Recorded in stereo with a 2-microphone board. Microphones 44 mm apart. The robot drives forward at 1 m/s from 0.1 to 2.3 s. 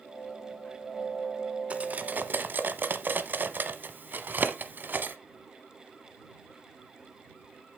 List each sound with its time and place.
1.7 s cutlery clinking: 35° right (ahead or behind), 1.2 m; by 5.2 s 50° right (ahead or behind), 0.9 m